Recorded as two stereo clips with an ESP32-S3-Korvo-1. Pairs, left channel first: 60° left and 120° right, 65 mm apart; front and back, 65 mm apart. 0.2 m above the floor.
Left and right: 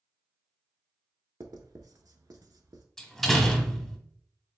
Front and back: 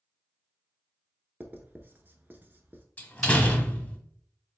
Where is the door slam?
5° right, 0.7 m.